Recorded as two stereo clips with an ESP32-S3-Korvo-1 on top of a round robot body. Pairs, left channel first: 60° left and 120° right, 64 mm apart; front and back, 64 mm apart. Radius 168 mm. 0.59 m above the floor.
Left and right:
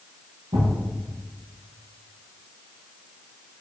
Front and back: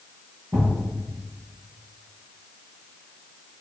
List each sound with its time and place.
0.5 s a thud: 115° right, 1.1 m